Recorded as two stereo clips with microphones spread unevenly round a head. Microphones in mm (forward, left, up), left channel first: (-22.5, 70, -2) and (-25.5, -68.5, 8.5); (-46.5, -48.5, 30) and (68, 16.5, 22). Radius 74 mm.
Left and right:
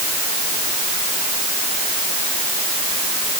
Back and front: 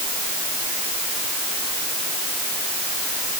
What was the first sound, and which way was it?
Only background noise.